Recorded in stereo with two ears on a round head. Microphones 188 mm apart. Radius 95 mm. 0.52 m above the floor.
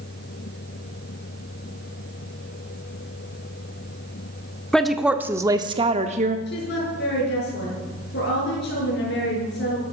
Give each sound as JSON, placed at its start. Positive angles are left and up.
{"t": 4.7, "sound": "a woman speaking", "side_deg": 5, "distance_m": 0.9}
{"t": 6.5, "sound": "a woman speaking", "side_deg": 50, "distance_m": 7.5}